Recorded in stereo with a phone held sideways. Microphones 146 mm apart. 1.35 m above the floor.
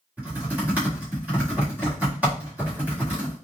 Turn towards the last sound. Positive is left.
turn(degrees=-10)  # may be behind; listen again after turning